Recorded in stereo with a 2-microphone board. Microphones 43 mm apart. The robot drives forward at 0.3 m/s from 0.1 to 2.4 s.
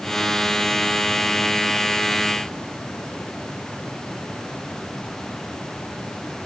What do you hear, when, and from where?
Only background noise.